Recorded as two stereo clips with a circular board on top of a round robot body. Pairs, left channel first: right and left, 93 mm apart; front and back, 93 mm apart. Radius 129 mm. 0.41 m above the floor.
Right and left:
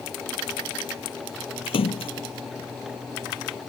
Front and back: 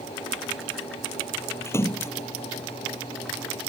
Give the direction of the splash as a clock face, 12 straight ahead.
2 o'clock.